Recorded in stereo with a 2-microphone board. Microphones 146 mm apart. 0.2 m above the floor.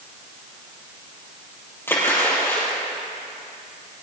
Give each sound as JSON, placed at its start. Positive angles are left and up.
{"t": 1.9, "sound": "a splash", "side_deg": 15, "distance_m": 4.0}